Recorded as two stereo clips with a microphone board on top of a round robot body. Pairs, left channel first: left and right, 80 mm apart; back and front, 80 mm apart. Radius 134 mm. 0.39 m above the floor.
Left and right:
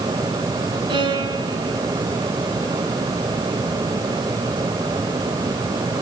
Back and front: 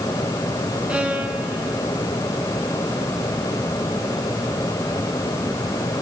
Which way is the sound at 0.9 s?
75° right.